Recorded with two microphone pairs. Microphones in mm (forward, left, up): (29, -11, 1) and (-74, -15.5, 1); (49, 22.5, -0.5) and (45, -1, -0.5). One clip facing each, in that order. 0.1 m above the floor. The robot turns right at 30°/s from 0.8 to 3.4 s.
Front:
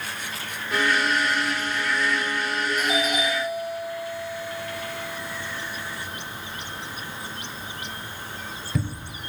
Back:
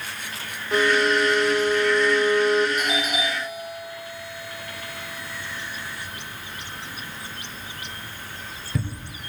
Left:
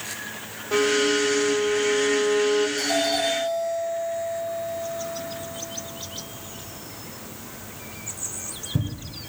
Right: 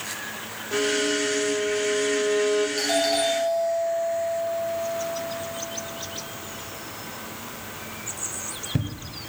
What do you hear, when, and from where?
0.7 s a violin: 120° left, 2.5 m; by 2.7 s 175° left, 2.5 m
2.8 s a doorbell: 105° right, 3 m; by 8.9 s 90° right, 3 m